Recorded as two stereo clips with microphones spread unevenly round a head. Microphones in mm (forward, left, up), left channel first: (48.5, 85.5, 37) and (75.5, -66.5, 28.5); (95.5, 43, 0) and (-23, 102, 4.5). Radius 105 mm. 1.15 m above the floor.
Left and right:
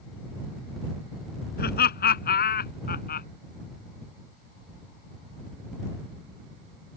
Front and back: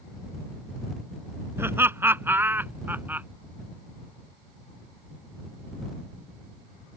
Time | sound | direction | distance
1.6 | laughter | 80° left | ?